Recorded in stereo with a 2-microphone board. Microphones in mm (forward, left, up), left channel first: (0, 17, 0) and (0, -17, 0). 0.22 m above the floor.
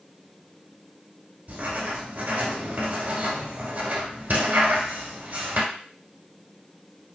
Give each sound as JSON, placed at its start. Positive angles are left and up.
{"t": 1.5, "sound": "writing", "side_deg": -60, "distance_m": 1.5}